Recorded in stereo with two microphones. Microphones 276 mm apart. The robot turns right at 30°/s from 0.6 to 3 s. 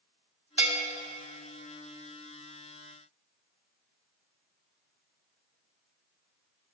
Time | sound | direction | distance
0.6 | a bell | 65° right (ahead or behind) | 2.0 m